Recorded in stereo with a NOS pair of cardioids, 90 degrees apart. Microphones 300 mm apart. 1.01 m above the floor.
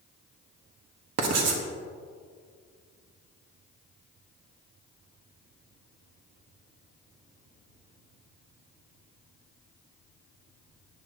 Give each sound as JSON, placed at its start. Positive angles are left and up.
{"t": 1.2, "sound": "writing", "azimuth_deg": -60, "distance_m": 1.4}